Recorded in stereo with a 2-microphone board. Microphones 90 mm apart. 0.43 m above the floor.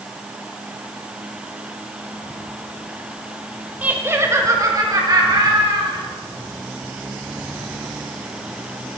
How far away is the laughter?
About 1.5 m.